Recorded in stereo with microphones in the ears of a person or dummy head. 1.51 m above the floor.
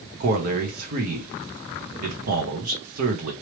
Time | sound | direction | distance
0.2 | a man speaking | 50° right (ahead or behind) | 1.1 m